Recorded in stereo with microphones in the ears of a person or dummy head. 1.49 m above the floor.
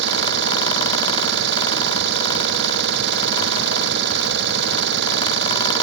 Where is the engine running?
70° right (ahead or behind).